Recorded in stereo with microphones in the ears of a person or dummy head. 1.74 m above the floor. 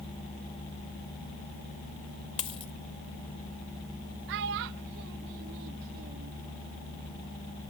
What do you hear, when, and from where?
2.4 s a dropped coin: 30° left (ahead or behind)
4.3 s a child speaking: 55° right (ahead or behind)